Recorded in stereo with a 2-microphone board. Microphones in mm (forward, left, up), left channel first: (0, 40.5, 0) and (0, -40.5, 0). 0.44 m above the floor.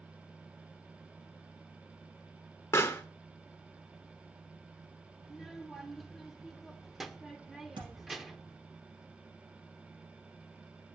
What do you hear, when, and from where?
2.7 s a pop: 35° left (ahead or behind), 0.7 m
5.2 s a child speaking: 5° right (ahead or behind), 0.8 m
7.8 s a thud: 85° right, 3.5 m